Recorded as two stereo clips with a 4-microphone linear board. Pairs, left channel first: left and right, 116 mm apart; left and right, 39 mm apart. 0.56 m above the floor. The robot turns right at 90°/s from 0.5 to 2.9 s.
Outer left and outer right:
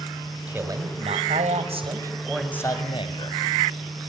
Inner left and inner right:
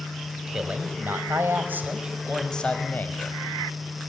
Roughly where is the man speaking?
Behind.